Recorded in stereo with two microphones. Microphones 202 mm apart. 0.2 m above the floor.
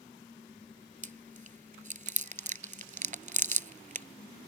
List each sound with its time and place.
1.0 s chewing: 40° right (ahead or behind)